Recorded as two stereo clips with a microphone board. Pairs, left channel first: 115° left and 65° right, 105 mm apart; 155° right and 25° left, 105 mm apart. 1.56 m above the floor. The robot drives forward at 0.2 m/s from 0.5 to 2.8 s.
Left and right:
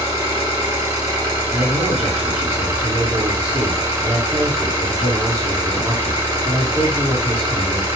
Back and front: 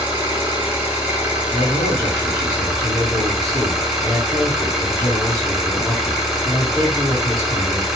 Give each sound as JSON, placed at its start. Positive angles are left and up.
{"t": 0.0, "sound": "an engine running", "azimuth_deg": -35, "distance_m": 1.4}
{"t": 1.5, "sound": "a man speaking", "azimuth_deg": -120, "distance_m": 1.3}